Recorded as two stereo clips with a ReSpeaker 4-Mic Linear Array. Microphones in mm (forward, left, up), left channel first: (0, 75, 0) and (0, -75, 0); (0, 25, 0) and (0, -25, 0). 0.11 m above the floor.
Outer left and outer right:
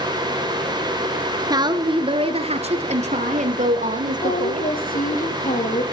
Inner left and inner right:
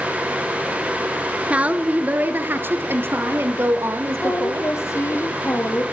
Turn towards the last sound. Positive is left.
turn(degrees=70)  # may be behind; listen again after turning